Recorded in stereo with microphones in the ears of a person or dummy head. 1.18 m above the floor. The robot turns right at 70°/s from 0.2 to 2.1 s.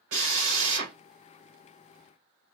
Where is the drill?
105° right, 1.6 m; by 0.9 s 55° right, 1.6 m.